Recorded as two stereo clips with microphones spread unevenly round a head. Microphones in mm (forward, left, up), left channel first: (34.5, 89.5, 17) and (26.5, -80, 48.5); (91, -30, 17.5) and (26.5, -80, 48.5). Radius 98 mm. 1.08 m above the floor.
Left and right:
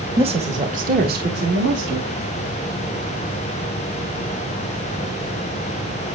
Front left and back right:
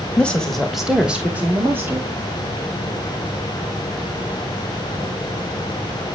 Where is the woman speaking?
30° right, 1.3 m; by 2.2 s 80° right, 1.8 m.